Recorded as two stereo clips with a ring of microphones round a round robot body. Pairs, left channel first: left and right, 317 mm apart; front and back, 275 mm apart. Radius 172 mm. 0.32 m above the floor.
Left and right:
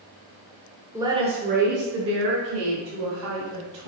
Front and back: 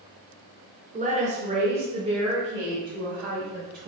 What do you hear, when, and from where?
0.9 s a woman speaking: 160° right, 1.4 m; by 3.9 s 105° right, 3 m